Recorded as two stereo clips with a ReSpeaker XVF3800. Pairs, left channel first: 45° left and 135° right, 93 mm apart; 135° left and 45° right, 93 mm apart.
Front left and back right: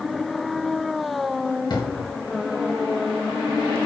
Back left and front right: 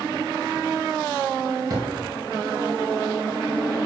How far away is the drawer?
About 2.0 m.